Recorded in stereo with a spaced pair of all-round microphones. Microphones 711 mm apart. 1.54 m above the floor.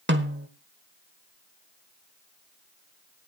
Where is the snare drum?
15° right (ahead or behind), 1.3 m.